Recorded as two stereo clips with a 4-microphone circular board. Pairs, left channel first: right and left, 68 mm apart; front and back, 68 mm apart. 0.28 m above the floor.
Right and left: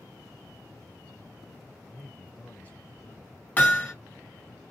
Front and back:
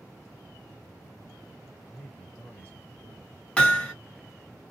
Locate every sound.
1.8 s a man speaking: 40° right, 1.4 m
3.6 s hammering: 55° right, 1.1 m